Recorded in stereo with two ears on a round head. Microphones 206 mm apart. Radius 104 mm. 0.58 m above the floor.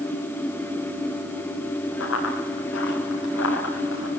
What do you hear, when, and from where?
2.0 s running footsteps: 55° left (ahead or behind), 7 m